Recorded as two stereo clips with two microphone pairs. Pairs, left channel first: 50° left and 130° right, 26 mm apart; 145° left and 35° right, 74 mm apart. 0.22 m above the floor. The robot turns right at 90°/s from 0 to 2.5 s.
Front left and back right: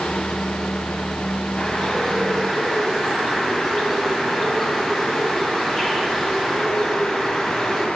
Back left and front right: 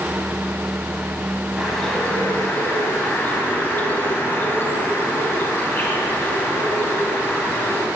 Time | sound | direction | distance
1.6 | a bird | 40° left | 1.4 m